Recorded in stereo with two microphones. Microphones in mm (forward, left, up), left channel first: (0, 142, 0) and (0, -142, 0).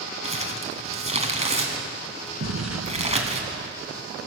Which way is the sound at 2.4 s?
65° right (ahead or behind).